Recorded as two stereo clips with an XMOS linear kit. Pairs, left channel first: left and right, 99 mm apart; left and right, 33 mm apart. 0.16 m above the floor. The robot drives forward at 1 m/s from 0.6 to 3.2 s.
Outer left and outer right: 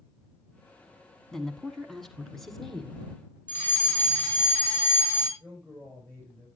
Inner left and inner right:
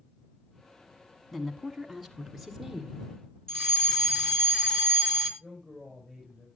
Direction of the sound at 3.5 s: 20° left (ahead or behind).